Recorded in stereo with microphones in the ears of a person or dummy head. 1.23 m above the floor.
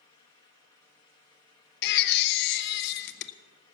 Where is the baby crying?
65° left (ahead or behind), 0.6 m.